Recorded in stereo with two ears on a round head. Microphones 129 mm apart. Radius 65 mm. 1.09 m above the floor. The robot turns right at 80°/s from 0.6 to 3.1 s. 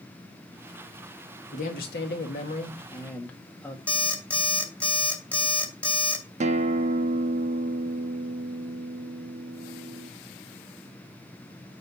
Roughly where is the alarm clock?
Centre.